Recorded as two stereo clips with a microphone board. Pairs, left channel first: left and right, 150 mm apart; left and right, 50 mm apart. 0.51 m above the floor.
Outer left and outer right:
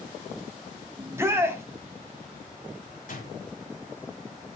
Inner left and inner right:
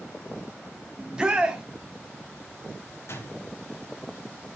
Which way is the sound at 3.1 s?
60° left (ahead or behind).